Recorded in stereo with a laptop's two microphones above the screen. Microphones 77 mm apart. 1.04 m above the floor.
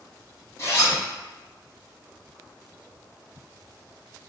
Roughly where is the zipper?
Left.